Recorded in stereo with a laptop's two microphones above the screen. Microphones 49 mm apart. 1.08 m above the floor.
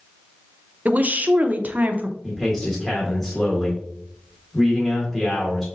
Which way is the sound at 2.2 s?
15° left (ahead or behind).